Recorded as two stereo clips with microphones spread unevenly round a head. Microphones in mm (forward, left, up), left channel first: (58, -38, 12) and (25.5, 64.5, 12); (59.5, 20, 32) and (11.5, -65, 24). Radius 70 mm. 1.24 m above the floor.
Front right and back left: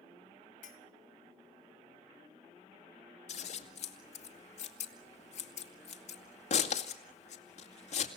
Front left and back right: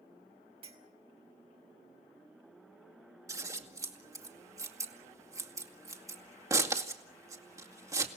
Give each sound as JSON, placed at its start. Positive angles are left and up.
{"t": 0.6, "sound": "a clink", "azimuth_deg": -90, "distance_m": 3.0}
{"t": 3.3, "sound": "scissors", "azimuth_deg": -60, "distance_m": 2.0}